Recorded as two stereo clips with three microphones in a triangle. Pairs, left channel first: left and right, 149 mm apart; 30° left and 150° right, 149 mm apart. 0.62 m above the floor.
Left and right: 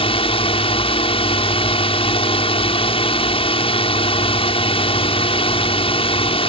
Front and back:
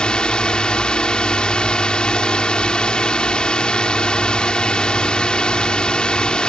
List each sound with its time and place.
0.0 s a drone: 110° left